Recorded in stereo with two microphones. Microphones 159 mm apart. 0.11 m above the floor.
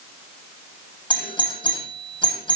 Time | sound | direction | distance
1.1 | a doorbell | 30° left (ahead or behind) | 7 m